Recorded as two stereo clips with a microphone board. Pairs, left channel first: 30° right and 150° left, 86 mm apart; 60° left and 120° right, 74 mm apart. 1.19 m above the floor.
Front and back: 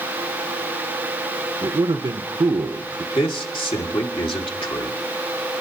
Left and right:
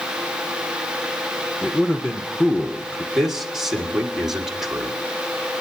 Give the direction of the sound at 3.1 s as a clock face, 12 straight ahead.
1 o'clock.